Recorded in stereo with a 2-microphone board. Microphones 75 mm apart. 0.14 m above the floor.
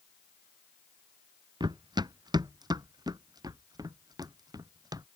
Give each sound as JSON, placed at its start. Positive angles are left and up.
{"t": 1.6, "sound": "running footsteps", "side_deg": -80}